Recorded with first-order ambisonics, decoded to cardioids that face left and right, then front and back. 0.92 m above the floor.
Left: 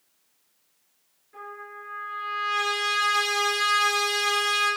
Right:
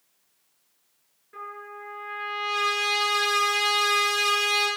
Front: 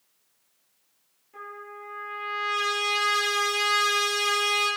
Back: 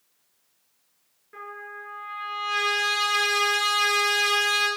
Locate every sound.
1.3 s a trumpet: 160° right, 4 m